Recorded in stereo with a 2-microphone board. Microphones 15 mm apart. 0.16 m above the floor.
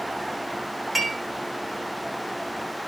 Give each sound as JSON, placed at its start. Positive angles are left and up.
{"t": 0.9, "sound": "dishes clattering", "side_deg": 0, "distance_m": 4.5}